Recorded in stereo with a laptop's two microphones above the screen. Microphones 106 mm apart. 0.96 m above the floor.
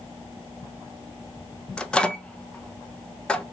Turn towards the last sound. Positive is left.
turn(degrees=10)  # may be behind; listen again after turning